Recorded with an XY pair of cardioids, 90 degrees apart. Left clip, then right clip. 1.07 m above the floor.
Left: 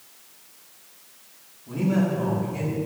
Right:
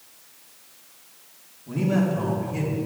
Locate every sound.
1.7 s a man speaking: 20° right, 2.5 m; by 2.8 s 35° right, 3 m